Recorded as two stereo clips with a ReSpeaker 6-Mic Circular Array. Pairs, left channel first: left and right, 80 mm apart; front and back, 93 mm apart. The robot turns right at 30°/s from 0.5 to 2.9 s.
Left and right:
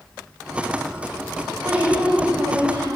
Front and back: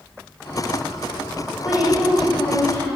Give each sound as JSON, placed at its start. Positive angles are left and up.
{"t": 1.6, "sound": "a woman speaking", "azimuth_deg": -105, "distance_m": 3.0}